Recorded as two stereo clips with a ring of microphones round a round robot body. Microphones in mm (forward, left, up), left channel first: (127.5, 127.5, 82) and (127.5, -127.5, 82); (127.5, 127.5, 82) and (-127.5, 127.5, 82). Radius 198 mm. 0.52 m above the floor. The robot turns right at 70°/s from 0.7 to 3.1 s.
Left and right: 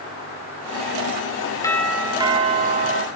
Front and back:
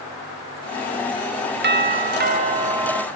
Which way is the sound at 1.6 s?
165° left.